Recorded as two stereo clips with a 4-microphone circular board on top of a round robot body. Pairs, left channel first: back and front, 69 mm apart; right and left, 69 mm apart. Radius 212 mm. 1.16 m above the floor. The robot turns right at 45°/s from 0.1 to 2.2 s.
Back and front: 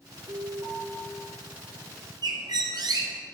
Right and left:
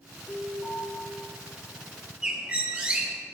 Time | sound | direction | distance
0.3 | an alarm | 10° right | 3.5 m
2.2 | a bird | 15° left | 0.6 m